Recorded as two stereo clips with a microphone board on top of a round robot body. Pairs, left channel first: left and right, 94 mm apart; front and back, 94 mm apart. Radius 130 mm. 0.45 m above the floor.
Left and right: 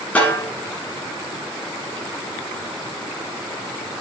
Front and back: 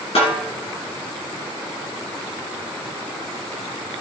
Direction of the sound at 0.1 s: 15° left.